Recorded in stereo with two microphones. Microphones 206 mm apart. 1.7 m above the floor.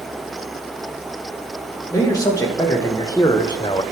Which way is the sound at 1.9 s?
15° left (ahead or behind).